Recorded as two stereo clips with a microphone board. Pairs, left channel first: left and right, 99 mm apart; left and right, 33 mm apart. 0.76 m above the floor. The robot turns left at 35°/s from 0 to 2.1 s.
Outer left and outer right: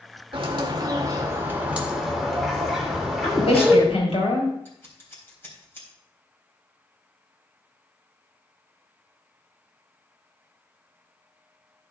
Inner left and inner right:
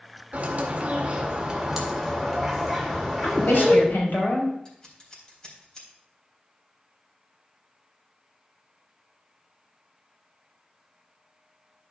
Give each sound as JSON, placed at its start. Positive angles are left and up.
{"t": 0.3, "sound": "a bird", "azimuth_deg": -115, "distance_m": 1.7}
{"t": 3.2, "sound": "a woman speaking", "side_deg": 85, "distance_m": 3.5}
{"t": 4.7, "sound": "scissors", "side_deg": 20, "distance_m": 3.5}